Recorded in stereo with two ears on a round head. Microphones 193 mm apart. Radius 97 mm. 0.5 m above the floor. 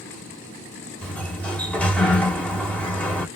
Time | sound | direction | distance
1.0 | a sliding door | 5° left (ahead or behind) | 1.3 m